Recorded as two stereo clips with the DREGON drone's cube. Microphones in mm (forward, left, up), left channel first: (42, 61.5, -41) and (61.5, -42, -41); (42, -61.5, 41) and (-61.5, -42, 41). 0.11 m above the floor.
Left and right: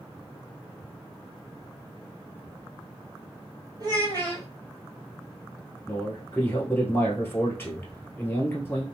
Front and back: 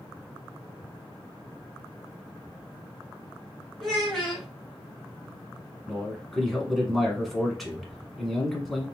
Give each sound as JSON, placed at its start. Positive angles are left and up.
{"t": 3.8, "sound": "a child speaking", "azimuth_deg": -95, "distance_m": 1.6}
{"t": 5.9, "sound": "a man speaking", "azimuth_deg": 80, "distance_m": 1.1}